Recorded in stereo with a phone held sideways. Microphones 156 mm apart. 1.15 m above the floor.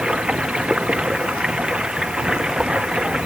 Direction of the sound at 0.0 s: 5° right (ahead or behind).